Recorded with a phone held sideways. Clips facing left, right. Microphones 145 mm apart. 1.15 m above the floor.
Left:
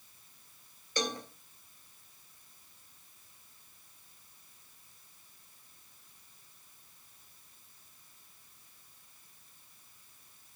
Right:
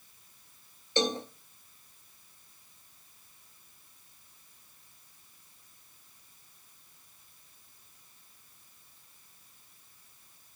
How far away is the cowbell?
About 0.6 m.